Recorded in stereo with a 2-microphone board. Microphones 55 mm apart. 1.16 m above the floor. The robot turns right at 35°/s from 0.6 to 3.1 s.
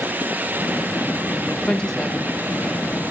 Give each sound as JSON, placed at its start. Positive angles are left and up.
{"t": 1.6, "sound": "a woman speaking", "side_deg": 20, "distance_m": 1.8}